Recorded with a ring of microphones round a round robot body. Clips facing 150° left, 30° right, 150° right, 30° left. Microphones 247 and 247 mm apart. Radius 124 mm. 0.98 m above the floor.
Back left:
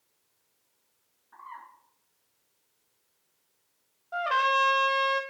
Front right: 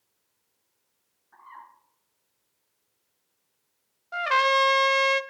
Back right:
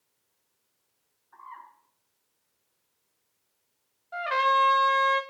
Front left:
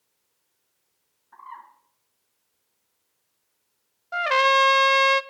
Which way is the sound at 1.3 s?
60° left.